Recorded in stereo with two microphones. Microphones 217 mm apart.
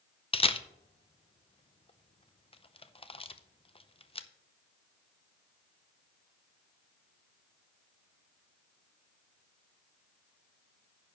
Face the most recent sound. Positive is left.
turn(degrees=25)  # may be behind; listen again after turning